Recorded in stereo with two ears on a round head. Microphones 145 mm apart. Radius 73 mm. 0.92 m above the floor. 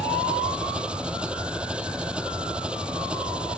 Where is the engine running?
5° right (ahead or behind).